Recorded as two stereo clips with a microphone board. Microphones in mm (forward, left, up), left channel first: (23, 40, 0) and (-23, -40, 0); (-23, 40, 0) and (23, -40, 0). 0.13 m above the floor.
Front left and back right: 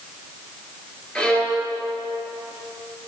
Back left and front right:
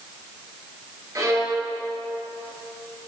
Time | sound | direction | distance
1.1 | a violin | 15° right | 2 m